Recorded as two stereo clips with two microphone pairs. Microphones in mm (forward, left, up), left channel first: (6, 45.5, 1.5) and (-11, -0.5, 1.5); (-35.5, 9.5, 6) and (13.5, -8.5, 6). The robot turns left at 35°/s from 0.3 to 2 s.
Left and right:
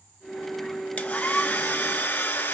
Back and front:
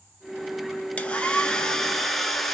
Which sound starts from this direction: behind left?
A hair dryer, at 1.0 s.